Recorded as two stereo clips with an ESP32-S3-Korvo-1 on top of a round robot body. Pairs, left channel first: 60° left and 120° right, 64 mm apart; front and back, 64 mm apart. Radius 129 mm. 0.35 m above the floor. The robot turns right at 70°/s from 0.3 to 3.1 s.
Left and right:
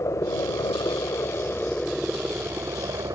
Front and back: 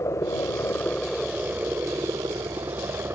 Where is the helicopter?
30° left; by 3.2 s 135° right.